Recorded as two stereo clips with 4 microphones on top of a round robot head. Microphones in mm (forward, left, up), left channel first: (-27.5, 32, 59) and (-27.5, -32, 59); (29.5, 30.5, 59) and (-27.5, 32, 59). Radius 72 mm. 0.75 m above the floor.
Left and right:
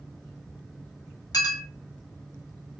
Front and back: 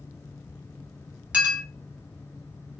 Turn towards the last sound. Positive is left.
turn(degrees=110)